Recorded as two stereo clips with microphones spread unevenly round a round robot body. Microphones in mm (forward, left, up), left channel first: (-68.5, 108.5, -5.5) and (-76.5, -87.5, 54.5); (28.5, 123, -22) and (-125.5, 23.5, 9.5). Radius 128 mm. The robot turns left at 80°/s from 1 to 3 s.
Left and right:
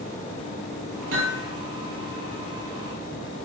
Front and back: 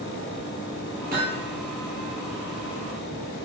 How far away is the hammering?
About 9.5 m.